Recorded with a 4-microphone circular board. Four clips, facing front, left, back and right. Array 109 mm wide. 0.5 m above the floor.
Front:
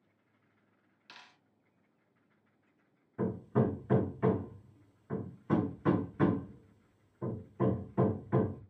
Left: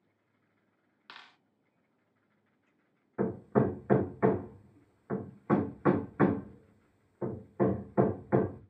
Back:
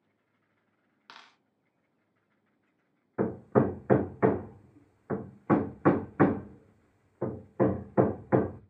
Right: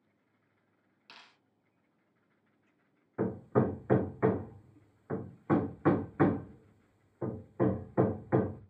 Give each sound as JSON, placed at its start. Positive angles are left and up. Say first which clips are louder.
{"t": 1.1, "sound": "a dropped coin", "louder": "left 5 dB, back 4 dB", "azimuth_deg": 145, "distance_m": 1.4}
{"t": 3.2, "sound": "hammering", "louder": "left 1 dB, back 6 dB", "azimuth_deg": 175, "distance_m": 0.6}